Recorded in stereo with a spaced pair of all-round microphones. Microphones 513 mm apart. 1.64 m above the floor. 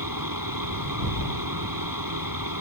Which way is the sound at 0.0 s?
40° right (ahead or behind).